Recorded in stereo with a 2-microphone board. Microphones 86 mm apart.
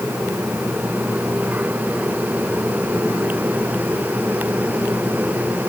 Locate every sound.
Only background noise.